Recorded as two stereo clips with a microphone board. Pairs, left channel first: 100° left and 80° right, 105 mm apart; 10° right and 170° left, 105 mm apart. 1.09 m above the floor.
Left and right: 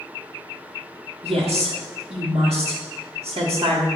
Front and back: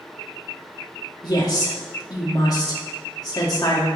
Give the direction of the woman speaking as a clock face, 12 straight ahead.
2 o'clock.